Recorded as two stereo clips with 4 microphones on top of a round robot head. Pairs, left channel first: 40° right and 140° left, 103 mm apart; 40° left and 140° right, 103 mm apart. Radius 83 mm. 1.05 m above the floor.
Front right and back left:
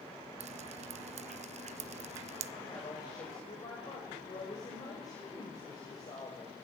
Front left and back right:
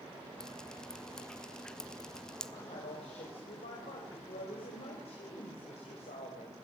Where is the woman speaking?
15° left, 6 m.